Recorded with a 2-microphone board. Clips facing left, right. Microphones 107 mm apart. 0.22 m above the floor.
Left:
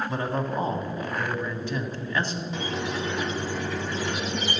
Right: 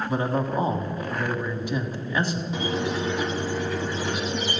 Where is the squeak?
10° right (ahead or behind), 0.9 m.